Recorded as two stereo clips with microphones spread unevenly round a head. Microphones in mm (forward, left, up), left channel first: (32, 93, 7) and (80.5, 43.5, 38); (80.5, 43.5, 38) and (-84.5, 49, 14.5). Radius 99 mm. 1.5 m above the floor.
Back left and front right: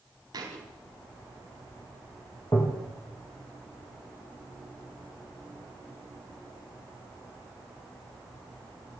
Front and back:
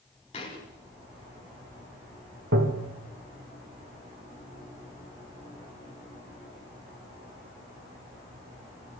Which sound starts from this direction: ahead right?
A thud, at 0.3 s.